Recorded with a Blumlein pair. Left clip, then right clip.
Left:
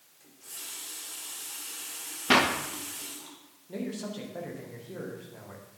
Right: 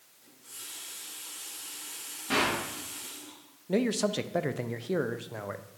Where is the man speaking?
30° right, 0.7 m.